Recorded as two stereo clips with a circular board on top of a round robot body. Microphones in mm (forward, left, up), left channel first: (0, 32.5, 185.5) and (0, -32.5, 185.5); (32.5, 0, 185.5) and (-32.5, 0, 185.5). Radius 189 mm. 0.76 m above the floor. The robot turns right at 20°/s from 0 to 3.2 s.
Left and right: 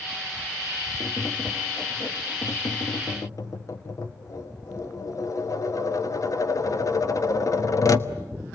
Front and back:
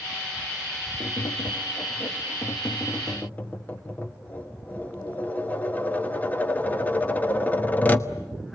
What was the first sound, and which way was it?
Tapping, 20° left.